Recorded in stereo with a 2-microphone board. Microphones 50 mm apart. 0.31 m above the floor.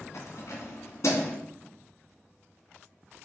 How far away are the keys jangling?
About 2 m.